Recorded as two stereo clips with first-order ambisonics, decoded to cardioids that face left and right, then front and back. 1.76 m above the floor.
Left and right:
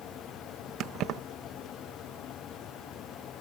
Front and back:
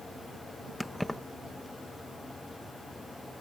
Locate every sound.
0.8 s keys jangling: 90° right